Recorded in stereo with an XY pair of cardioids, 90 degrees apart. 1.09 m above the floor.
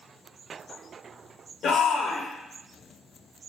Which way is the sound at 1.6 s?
70° left.